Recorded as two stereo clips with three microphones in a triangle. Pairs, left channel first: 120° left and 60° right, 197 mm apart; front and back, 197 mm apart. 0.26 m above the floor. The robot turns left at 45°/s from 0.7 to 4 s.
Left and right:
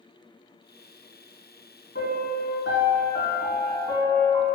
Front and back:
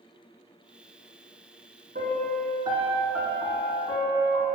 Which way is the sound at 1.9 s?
140° left.